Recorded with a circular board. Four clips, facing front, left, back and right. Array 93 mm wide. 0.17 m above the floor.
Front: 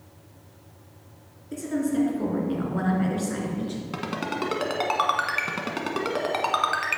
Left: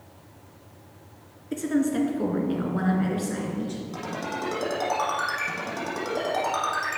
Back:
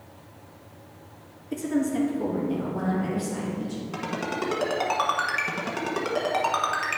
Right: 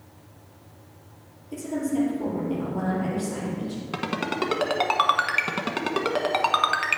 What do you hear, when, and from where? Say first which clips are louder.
1.5 s a woman speaking: left 2 dB, even; 95° left, 2.5 m; by 3.8 s 20° left, 3 m
3.9 s a ringtone: right 8 dB, even; 75° right, 1.2 m